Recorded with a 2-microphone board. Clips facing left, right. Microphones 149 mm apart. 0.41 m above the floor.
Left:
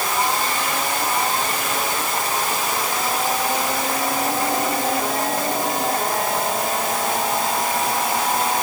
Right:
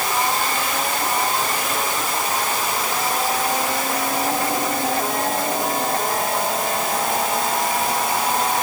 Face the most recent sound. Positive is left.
No sound to turn to.